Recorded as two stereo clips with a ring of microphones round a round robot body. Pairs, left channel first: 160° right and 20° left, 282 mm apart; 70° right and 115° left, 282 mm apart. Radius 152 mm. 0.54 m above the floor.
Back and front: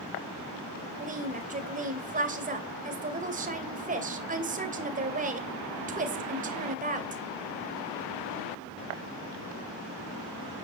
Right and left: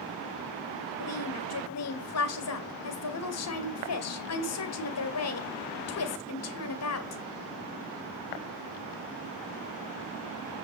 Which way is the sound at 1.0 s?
40° right.